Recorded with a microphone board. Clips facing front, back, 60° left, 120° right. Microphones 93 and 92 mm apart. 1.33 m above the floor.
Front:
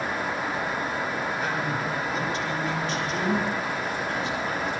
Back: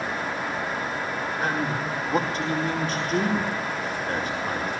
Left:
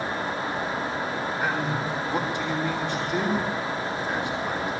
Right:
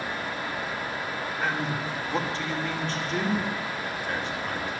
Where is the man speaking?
135° left, 4.5 m.